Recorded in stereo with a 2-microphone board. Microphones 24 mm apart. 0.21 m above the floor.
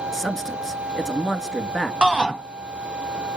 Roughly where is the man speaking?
Centre.